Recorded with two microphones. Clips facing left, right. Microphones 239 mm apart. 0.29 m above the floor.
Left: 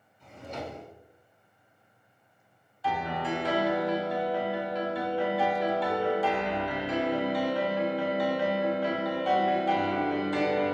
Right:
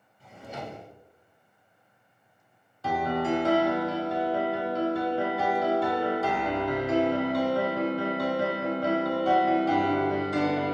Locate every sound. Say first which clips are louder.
0.2 s a drawer: left 1 dB; 10° right (ahead or behind), 1.5 m
2.8 s a piano: right 5 dB; 50° right (ahead or behind), 0.6 m